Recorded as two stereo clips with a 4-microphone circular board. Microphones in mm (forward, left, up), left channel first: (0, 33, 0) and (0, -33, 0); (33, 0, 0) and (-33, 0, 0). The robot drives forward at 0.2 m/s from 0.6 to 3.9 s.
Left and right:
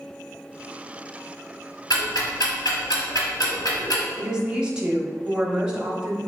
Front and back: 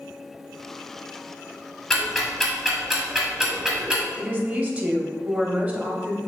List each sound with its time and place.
1.9 s ticking: 80° left, 1.2 m; by 4.0 s 100° left, 1.2 m
4.2 s a woman speaking: 150° right, 0.8 m